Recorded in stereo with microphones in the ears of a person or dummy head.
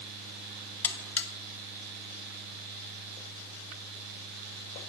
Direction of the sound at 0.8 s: 10° left (ahead or behind).